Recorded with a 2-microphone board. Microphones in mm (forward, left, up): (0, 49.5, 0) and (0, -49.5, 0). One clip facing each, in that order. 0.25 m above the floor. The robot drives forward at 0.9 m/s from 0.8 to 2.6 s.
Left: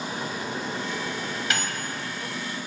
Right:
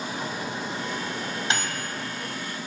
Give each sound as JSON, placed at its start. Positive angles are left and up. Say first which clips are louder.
{"t": 0.1, "sound": "a microwave", "louder": "even", "side_deg": -25, "distance_m": 1.6}